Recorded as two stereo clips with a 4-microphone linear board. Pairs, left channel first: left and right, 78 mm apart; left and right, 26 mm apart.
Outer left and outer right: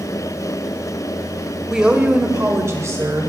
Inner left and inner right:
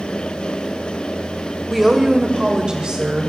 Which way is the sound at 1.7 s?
10° right (ahead or behind).